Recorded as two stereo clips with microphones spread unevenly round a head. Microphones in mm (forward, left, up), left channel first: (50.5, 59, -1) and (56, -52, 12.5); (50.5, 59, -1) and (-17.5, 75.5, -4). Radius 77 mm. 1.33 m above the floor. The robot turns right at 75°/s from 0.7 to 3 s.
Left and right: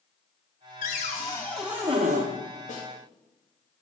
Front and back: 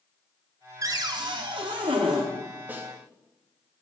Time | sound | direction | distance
0.8 | a cupboard door | 125° left | 1.1 m
2.7 | a snare drum | 100° left | 2 m